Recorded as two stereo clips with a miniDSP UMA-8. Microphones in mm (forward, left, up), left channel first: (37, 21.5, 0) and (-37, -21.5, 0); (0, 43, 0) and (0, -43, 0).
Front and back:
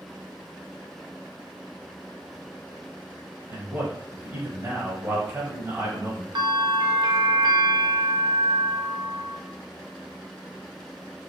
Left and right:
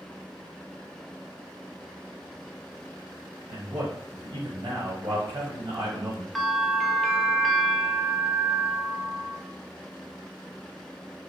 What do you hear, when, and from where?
3.5 s a man speaking: 100° right, 1.1 m
6.3 s a bell: straight behind, 0.5 m